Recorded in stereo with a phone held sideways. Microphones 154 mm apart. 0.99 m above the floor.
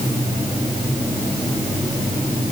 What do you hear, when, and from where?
Only background noise.